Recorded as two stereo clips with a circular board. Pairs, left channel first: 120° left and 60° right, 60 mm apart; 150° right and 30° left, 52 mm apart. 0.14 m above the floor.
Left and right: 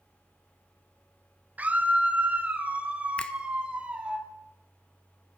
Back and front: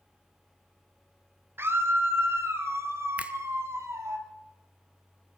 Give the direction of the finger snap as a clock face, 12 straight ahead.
10 o'clock.